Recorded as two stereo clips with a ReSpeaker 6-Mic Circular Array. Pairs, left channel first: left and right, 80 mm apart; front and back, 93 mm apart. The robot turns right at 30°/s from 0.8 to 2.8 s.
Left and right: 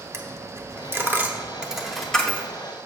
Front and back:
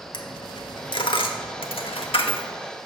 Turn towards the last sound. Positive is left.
turn(degrees=25)